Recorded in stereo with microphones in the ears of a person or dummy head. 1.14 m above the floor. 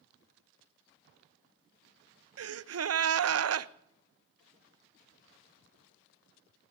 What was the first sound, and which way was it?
A gasp, 75° right (ahead or behind).